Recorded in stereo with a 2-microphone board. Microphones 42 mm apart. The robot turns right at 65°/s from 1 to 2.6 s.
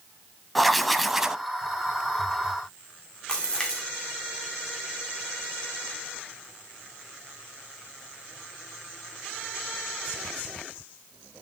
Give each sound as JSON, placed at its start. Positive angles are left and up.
{"t": 0.6, "sound": "writing", "side_deg": 0, "distance_m": 0.8}
{"t": 3.3, "sound": "a splash", "side_deg": 15, "distance_m": 2.5}